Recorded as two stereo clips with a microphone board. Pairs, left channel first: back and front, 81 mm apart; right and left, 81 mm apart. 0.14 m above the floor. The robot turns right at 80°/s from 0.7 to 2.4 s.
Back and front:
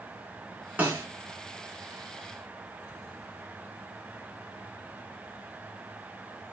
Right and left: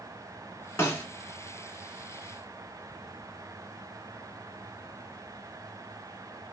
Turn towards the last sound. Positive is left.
turn(degrees=70)